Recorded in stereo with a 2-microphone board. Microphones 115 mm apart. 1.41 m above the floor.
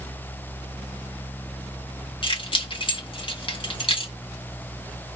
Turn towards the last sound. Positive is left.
turn(degrees=50)  # may be behind; listen again after turning